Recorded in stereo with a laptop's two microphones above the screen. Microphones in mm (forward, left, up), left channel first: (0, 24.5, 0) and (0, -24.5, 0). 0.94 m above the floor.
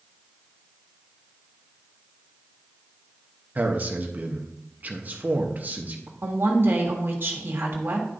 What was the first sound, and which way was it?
A man speaking, 35° right (ahead or behind).